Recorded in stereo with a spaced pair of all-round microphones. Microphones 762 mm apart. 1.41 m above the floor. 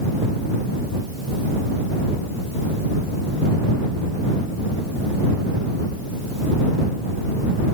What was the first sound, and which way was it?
Only background noise.